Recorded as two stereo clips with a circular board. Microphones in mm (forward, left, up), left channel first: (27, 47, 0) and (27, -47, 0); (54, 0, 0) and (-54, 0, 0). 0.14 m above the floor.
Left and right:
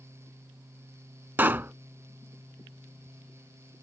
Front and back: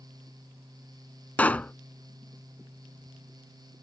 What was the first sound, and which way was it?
A pop, 55° right.